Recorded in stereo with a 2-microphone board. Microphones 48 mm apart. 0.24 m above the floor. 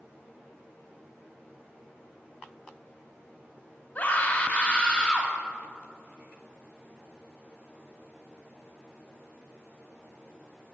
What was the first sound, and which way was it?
A scream, 35° left (ahead or behind).